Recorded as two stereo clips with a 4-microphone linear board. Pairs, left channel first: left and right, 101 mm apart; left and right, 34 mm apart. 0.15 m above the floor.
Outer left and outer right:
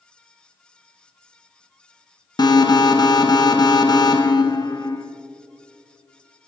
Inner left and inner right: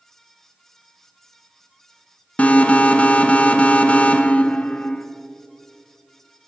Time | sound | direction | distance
2.4 | an alarm | 40° left (ahead or behind) | 0.9 m